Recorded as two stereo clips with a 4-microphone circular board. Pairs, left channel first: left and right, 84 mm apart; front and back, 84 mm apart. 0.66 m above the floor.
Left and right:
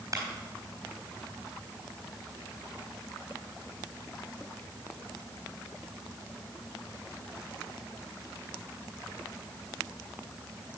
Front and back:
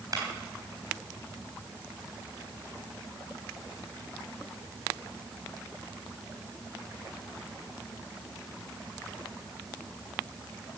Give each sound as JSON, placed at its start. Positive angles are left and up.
{"t": 0.1, "sound": "a clap", "azimuth_deg": -140, "distance_m": 4.0}